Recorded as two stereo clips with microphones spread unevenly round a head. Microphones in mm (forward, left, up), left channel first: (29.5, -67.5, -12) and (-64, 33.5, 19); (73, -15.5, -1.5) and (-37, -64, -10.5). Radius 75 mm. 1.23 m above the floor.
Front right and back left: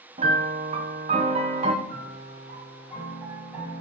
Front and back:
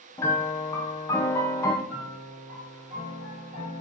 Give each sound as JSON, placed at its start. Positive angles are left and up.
{"t": 0.2, "sound": "a piano", "azimuth_deg": 90, "distance_m": 0.7}
{"t": 1.9, "sound": "a piano", "azimuth_deg": -150, "distance_m": 4.0}